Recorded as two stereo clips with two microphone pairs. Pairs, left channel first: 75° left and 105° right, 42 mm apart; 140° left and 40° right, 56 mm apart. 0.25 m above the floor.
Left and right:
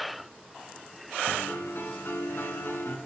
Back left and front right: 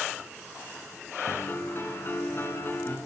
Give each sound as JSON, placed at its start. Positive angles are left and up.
{"t": 1.3, "sound": "a piano", "azimuth_deg": 95, "distance_m": 1.3}